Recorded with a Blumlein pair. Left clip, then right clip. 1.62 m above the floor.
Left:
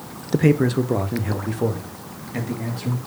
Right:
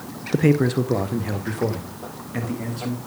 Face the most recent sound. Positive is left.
turn(degrees=-5)